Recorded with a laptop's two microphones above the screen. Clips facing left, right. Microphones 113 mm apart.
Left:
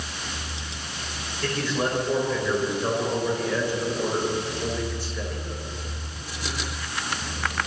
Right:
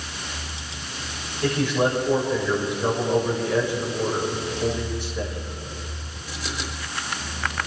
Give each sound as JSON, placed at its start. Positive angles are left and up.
{"t": 1.4, "sound": "a man speaking", "side_deg": -20, "distance_m": 4.5}